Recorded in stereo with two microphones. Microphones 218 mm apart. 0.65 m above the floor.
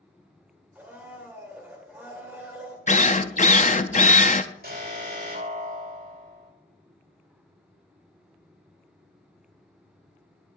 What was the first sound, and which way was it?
A blender, 10° right (ahead or behind).